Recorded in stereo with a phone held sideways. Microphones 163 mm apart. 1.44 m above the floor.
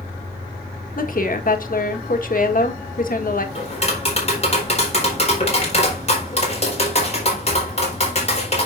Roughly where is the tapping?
Left.